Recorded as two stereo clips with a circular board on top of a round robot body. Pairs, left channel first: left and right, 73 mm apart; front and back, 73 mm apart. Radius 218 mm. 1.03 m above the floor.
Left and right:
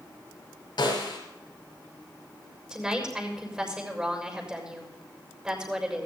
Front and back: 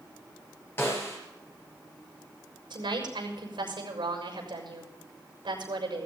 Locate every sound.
0.8 s a snare drum: 60° left, 5.5 m
2.7 s a woman speaking: 165° right, 6.5 m